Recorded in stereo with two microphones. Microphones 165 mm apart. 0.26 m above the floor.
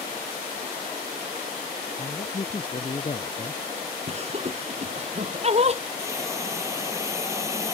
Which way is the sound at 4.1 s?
40° right (ahead or behind).